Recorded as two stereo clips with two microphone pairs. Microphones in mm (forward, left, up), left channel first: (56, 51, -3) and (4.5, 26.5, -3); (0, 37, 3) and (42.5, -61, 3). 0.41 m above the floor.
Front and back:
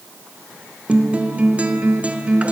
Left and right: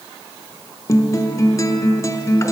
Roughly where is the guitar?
Behind left.